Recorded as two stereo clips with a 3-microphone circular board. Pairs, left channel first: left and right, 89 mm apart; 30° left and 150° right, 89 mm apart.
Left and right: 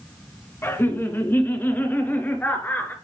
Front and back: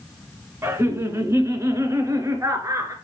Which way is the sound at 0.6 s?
150° left.